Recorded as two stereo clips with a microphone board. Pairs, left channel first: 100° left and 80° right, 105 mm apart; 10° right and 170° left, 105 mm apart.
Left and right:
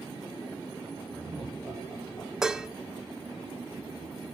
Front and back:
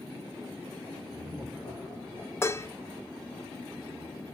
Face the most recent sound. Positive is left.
turn(degrees=-5)